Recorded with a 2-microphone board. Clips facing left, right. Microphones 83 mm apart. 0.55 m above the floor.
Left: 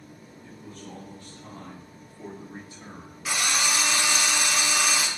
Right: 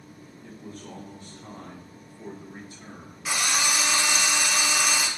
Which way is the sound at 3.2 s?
5° right (ahead or behind).